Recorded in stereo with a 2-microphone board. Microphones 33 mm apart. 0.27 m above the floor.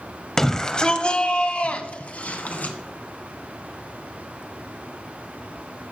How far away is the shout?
About 1.0 m.